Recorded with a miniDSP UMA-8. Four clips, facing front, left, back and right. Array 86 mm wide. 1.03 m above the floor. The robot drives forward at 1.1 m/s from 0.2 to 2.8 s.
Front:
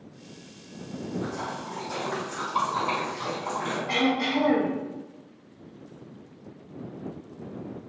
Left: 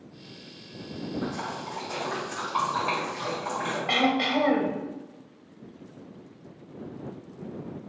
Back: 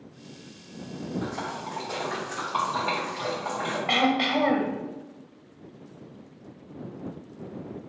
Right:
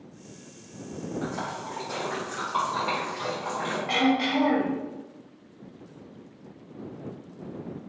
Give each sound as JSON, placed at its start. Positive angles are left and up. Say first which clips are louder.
{"t": 1.2, "sound": "a splash", "louder": "even, even", "azimuth_deg": -130, "distance_m": 2.0}
{"t": 3.9, "sound": "throat clearing", "louder": "right 1 dB, back 2 dB", "azimuth_deg": 165, "distance_m": 0.8}